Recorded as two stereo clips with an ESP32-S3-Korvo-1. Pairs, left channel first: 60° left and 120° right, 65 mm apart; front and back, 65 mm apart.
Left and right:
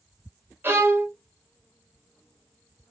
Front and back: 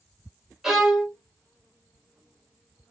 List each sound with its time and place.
0.6 s a violin: 100° right, 1.0 m